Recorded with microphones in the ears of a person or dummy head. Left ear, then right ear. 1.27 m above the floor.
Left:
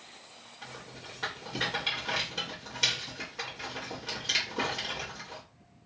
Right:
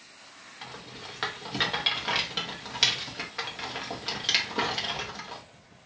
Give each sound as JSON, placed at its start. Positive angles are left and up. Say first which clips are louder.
{"t": 0.6, "sound": "a rattle", "louder": "right 3 dB", "side_deg": -40, "distance_m": 0.7}